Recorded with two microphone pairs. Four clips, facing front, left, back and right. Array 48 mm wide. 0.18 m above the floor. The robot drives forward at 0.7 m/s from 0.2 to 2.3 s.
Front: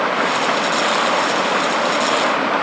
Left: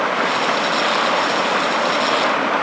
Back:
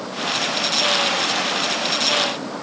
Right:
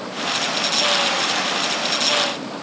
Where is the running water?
35° left; by 2.6 s 40° left.